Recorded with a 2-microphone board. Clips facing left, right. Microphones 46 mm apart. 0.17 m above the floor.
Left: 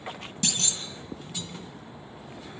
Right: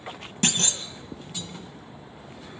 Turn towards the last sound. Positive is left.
turn(degrees=-50)  # may be behind; listen again after turning